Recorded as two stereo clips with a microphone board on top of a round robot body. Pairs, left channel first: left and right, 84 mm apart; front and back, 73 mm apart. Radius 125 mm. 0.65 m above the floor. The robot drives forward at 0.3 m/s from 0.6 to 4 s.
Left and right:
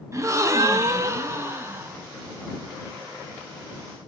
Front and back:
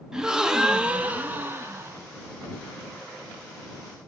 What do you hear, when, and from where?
0.1 s a gasp: 105° right, 0.8 m; by 2.0 s 140° right, 0.9 m